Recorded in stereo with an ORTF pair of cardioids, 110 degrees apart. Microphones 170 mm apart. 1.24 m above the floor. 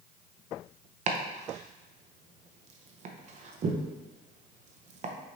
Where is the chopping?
45° right, 0.7 m.